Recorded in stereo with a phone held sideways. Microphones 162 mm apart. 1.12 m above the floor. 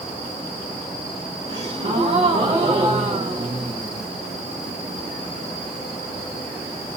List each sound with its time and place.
1.5 s a gasp: 45° right (ahead or behind), 2 m